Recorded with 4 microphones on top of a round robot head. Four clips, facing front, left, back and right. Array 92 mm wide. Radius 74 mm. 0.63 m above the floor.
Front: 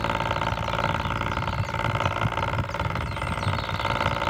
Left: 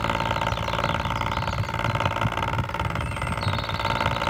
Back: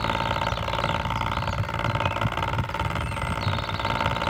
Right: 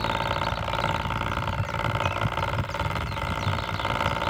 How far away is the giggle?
No giggle in this recording.